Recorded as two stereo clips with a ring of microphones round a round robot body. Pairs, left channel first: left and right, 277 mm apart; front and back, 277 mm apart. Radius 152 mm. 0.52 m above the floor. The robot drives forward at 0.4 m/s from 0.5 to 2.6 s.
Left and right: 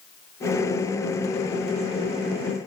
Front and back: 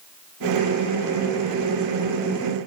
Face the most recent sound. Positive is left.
No sound to turn to.